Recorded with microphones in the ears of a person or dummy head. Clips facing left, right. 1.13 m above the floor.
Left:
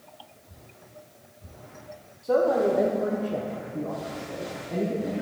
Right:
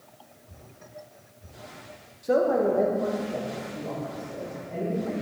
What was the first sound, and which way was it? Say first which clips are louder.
A man speaking: even; 15° right (ahead or behind).